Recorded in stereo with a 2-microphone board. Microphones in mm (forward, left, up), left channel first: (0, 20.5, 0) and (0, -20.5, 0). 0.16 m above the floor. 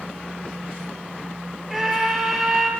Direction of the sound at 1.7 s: Centre (ahead or behind).